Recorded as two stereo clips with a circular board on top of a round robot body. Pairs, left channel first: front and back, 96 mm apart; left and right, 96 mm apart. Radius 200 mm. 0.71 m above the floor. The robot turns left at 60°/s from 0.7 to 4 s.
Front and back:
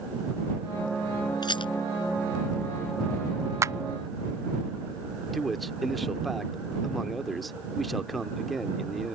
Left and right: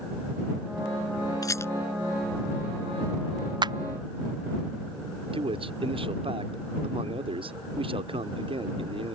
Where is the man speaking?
90° right.